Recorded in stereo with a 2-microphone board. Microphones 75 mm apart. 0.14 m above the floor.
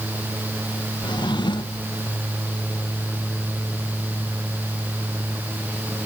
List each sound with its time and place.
1.0 s a drawer: 70° left (ahead or behind)